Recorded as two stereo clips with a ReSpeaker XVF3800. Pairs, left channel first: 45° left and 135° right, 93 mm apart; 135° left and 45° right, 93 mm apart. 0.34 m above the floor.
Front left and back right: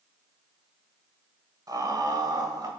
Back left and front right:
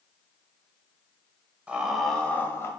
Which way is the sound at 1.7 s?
115° right.